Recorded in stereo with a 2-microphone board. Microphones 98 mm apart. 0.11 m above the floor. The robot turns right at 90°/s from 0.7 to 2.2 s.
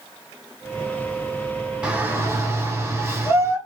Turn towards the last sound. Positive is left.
turn(degrees=-130)